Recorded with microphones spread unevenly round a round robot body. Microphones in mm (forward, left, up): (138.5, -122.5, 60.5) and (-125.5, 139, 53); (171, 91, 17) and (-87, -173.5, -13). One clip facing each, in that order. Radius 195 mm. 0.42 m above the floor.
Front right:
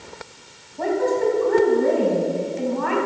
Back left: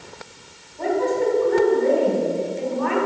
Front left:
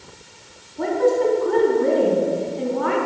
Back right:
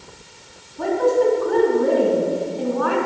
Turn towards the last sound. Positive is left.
turn(degrees=-5)